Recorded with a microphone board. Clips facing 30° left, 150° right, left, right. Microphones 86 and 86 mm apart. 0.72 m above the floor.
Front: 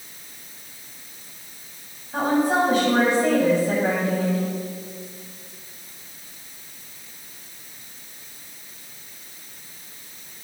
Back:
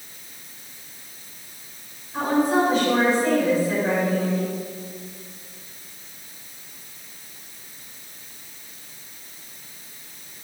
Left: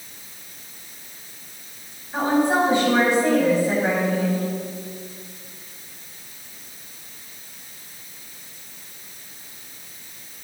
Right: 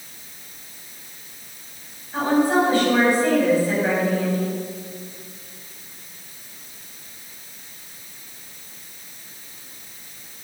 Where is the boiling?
I don't hear boiling.